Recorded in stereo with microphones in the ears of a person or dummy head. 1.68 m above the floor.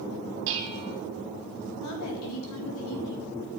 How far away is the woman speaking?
About 4 m.